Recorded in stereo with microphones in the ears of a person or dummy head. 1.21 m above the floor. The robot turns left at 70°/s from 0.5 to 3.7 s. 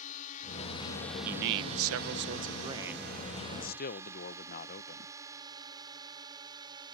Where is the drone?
40° left (ahead or behind); by 7.0 s 25° right (ahead or behind).